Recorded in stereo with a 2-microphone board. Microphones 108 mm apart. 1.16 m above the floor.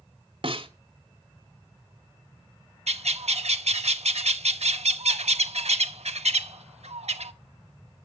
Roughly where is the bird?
Right.